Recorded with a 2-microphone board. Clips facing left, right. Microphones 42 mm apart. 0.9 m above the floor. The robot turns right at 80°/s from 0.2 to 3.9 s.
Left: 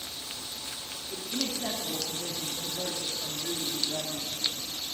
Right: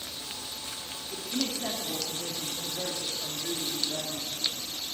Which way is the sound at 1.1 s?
170° left.